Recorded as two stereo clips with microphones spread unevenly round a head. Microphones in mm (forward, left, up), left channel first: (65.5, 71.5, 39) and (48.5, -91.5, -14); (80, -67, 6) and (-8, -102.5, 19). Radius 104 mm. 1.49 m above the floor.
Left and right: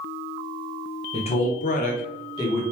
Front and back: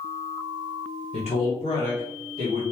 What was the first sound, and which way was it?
A man speaking, 35° left.